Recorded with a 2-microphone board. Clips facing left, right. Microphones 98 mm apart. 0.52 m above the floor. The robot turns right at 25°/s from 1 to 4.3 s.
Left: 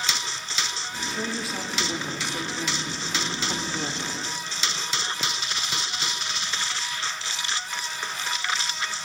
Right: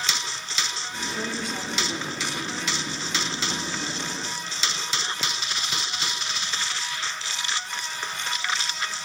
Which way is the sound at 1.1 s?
5° right.